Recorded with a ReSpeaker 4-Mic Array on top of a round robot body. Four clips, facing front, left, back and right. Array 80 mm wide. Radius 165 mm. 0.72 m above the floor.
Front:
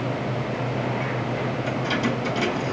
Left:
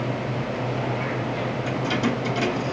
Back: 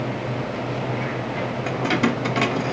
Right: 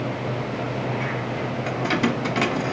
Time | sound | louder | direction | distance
1.7 | keys jangling | right 2 dB, back 5 dB | 145° right | 1.3 m